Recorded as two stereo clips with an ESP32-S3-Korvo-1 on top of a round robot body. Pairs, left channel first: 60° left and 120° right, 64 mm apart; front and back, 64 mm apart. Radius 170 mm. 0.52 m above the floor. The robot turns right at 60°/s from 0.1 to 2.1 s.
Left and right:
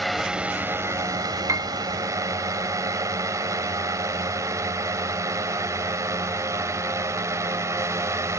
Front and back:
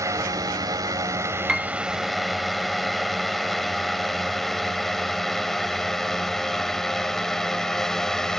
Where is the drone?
150° left; by 8.4 s 80° right.